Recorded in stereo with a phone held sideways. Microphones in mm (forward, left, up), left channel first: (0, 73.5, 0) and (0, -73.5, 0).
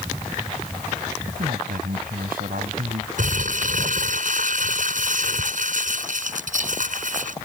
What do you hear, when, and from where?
1.3 s a man speaking: 70° right (ahead or behind)
3.2 s crumpling: 60° right (ahead or behind)